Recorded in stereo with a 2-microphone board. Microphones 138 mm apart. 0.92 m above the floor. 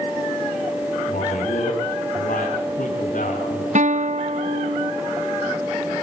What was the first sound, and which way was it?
A man speaking, 80° left.